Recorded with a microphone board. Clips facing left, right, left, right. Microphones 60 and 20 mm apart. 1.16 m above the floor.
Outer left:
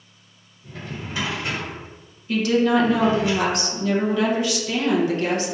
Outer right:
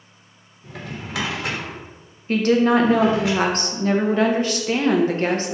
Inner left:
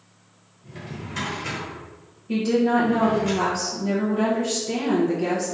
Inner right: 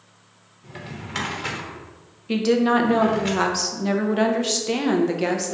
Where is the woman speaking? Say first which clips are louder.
Outer right 2 dB, inner right 2 dB; 40° right (ahead or behind), 0.5 m.